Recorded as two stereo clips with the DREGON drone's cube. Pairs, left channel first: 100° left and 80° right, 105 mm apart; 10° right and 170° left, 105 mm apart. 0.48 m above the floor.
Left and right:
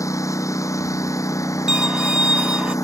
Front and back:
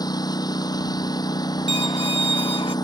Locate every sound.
0.0 s a lawn mower: 40° left
1.7 s a violin: straight ahead